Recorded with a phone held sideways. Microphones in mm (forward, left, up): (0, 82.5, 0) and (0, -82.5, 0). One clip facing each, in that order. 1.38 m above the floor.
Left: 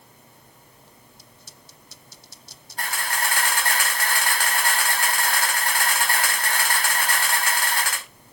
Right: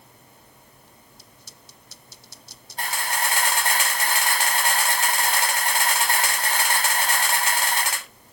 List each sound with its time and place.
2.8 s a camera shutter: 25° right (ahead or behind), 5 m